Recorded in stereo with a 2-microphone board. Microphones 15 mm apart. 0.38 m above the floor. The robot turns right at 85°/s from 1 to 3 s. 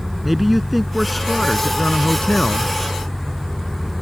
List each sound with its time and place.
0.2 s a man speaking: 10° right; by 2.7 s 135° left